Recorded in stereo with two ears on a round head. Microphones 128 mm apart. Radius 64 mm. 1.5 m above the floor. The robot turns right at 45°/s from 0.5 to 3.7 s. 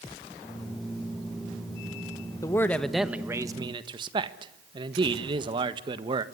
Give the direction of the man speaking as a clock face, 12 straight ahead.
7 o'clock.